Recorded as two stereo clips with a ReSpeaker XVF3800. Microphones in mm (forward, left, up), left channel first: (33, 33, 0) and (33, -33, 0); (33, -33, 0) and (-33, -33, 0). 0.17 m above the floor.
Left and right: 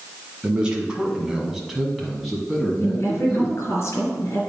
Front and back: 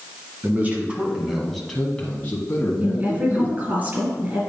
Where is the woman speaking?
120° left, 3 m.